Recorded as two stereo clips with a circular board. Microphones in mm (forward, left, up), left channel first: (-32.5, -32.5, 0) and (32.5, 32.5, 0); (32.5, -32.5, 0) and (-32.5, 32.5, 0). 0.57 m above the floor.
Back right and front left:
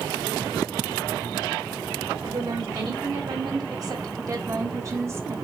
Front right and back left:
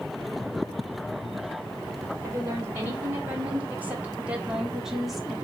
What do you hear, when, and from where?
2.2 s a woman speaking: 80° left, 2.5 m; by 5.3 s 40° left, 1.2 m